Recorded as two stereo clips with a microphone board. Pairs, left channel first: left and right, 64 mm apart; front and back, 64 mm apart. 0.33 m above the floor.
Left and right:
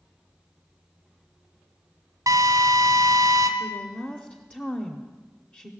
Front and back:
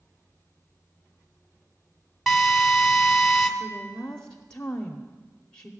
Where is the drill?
90° right, 1.2 m.